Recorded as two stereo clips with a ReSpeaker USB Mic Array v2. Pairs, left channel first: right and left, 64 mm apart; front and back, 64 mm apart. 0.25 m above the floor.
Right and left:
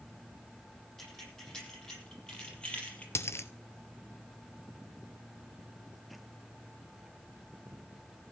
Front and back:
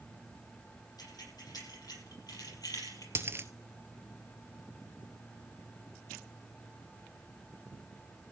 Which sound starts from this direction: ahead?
Keys jangling, at 1.0 s.